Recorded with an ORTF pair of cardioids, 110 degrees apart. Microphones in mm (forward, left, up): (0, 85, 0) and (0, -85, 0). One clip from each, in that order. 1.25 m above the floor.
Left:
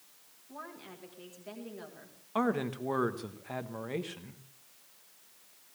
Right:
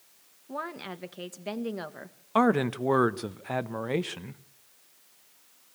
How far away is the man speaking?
About 1.1 m.